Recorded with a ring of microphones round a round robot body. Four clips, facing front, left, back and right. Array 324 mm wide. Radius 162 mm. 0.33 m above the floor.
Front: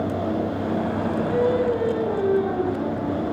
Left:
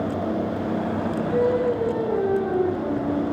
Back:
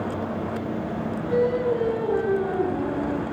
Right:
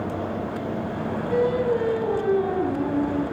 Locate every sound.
1.3 s singing: 100° right, 5 m